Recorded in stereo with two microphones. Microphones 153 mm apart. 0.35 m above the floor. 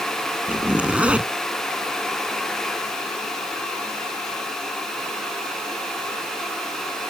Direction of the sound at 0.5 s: 10° right (ahead or behind).